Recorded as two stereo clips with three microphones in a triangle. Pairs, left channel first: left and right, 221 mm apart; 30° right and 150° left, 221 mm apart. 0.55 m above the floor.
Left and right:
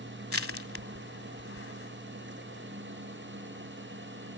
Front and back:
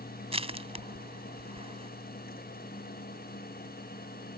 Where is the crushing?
90° left.